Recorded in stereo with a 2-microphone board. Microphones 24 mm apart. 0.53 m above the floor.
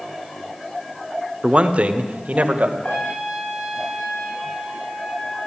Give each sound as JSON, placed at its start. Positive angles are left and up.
{"t": 1.4, "sound": "a man speaking", "side_deg": -45, "distance_m": 1.1}
{"t": 2.8, "sound": "a trumpet", "side_deg": 70, "distance_m": 5.5}